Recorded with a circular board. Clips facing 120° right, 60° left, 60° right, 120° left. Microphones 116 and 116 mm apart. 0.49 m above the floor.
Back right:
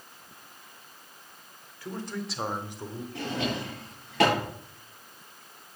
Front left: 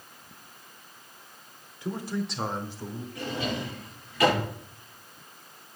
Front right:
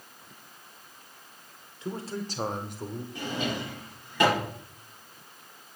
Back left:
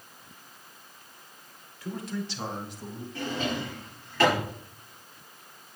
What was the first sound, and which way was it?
A man speaking, 5° right.